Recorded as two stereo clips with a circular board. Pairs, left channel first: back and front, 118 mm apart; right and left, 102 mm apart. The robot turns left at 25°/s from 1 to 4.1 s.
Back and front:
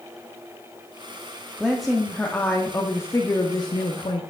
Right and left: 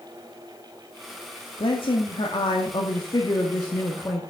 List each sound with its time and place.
1.6 s a woman speaking: 85° right, 1.0 m; by 4.2 s 145° right, 1.0 m